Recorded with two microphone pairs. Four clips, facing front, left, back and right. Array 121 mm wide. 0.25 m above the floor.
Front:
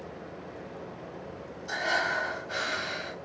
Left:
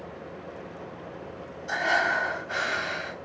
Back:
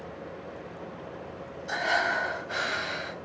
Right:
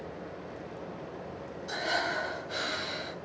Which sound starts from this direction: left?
Breathing, at 1.7 s.